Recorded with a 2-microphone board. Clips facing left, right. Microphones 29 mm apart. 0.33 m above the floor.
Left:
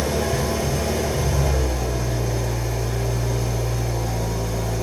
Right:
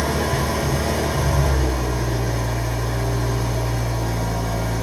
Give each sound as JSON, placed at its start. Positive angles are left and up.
{"t": 0.0, "sound": "an engine running", "side_deg": -50, "distance_m": 2.0}